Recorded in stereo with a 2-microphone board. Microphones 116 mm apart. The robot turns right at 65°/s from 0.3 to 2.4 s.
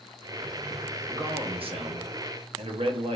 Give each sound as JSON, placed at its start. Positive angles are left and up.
{"t": 1.1, "sound": "a man speaking", "azimuth_deg": -150, "distance_m": 1.0}